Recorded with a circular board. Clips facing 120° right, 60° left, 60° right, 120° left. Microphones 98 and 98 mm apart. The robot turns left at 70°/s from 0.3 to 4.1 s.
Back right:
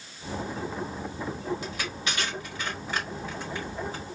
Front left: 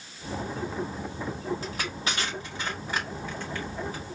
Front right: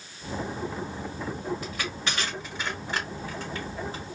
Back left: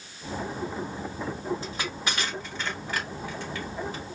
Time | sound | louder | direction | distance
1.6 | crushing | front left 1 dB, even | 80° left | 1.6 m